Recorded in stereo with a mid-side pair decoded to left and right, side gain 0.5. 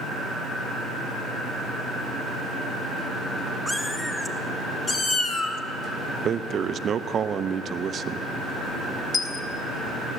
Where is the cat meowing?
10° left, 2.5 m; by 5.6 s 60° left, 1.4 m.